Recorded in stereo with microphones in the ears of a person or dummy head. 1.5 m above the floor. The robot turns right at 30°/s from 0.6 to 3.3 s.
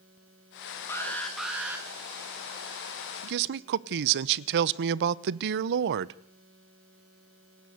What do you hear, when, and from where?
0.9 s an alarm: 15° left (ahead or behind), 3.5 m; by 1.9 s 15° right (ahead or behind), 3.5 m
3.2 s a man speaking: 60° right (ahead or behind), 0.8 m